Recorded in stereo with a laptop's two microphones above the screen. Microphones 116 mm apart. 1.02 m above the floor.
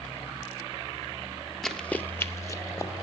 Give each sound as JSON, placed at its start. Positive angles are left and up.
{"t": 1.6, "sound": "running footsteps", "side_deg": 5, "distance_m": 1.1}